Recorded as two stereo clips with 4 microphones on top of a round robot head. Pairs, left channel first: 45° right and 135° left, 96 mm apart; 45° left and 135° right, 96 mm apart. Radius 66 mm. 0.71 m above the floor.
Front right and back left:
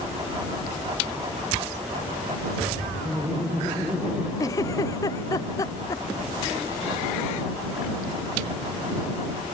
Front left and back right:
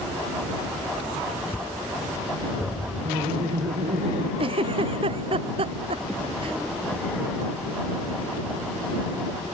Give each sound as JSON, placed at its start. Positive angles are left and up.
{"t": 3.0, "sound": "laughter", "azimuth_deg": -145}
{"t": 4.4, "sound": "a giggle", "azimuth_deg": -105}